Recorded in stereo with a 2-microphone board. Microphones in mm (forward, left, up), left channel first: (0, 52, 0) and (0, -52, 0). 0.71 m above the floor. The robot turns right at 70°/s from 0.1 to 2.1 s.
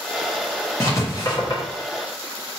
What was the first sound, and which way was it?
Writing, 25° left (ahead or behind).